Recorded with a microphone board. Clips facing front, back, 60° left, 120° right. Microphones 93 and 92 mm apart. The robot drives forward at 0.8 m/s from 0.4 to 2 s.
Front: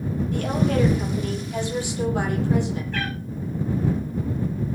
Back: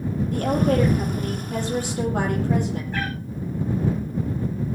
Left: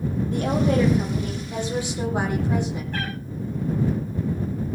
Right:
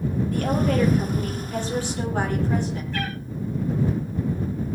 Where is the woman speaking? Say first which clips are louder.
Back 3 dB, left 2 dB; 130° left, 6 m; by 2.8 s 135° left, 6.5 m.